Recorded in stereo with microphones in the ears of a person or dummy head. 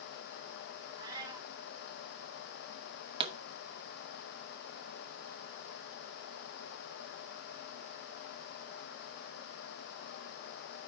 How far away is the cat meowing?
About 0.7 m.